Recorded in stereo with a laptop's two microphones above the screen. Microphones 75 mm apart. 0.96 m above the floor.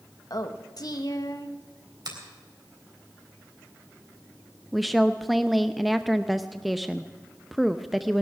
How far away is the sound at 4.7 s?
About 0.6 m.